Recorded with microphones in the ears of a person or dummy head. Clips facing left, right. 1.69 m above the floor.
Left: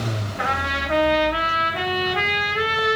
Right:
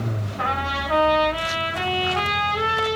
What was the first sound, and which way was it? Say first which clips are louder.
A trumpet: right 1 dB; 25° left (ahead or behind).